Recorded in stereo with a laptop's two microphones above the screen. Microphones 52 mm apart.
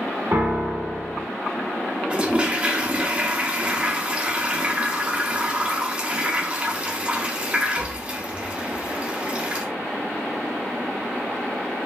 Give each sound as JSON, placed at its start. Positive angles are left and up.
{"t": 0.3, "sound": "a piano", "side_deg": -55, "distance_m": 1.6}
{"t": 2.1, "sound": "a toilet flushing", "side_deg": -20, "distance_m": 0.5}